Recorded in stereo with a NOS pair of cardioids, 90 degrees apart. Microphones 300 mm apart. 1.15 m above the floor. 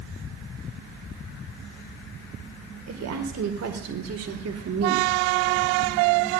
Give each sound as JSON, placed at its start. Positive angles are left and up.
{"t": 2.9, "sound": "a woman speaking", "azimuth_deg": -60, "distance_m": 5.0}